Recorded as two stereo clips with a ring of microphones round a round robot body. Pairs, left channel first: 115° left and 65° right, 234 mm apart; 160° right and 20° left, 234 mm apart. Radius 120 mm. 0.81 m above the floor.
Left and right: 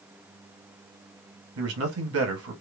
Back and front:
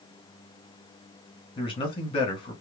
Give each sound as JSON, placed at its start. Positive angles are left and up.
{"t": 1.6, "sound": "a man speaking", "azimuth_deg": -90, "distance_m": 1.3}